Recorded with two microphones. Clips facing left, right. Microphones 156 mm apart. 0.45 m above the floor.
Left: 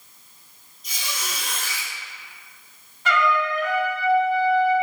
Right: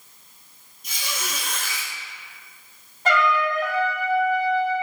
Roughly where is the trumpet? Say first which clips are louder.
Right 1 dB; right.